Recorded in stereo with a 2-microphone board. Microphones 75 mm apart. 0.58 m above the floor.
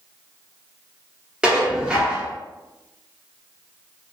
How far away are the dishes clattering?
About 0.7 m.